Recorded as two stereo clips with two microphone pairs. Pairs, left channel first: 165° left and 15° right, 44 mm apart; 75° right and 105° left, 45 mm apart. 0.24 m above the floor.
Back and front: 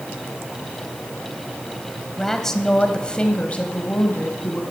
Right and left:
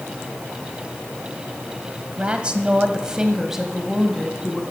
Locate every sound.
2.2 s a woman speaking: 95° left, 1.2 m; by 4.6 s 165° right, 1.6 m